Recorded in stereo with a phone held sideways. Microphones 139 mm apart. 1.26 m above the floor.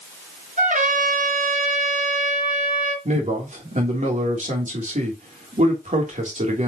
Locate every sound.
0.6 s a trumpet: 65° right (ahead or behind), 3.5 m
3.0 s a man speaking: 60° right (ahead or behind), 3 m